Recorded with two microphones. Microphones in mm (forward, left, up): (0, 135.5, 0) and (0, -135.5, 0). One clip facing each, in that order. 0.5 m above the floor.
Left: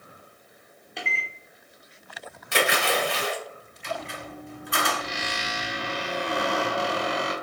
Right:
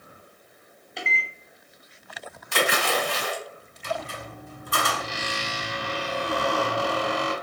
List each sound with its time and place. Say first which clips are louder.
1.0 s a microwave: right 1 dB; centre (ahead or behind), 0.7 m
2.5 s a splash: even; 65° left (ahead or behind), 1.2 m
3.8 s a squeak: right 2 dB; 45° right (ahead or behind), 0.8 m